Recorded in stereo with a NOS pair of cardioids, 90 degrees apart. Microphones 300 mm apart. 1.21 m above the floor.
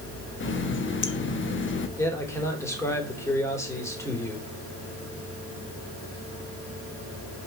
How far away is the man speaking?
About 3.5 m.